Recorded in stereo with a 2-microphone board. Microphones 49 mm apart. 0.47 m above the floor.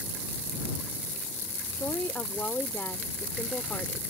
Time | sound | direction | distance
1.8 | a woman speaking | 45° left (ahead or behind) | ?